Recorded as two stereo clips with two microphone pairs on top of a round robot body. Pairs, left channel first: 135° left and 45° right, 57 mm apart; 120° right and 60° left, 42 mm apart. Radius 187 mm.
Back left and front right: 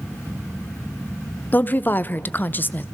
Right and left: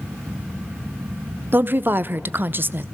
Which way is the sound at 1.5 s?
85° left.